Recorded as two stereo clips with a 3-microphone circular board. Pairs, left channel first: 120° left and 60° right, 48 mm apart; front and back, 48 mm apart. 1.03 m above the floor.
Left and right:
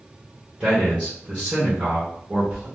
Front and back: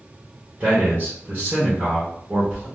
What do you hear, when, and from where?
0.6 s a man speaking: 120° right, 1.1 m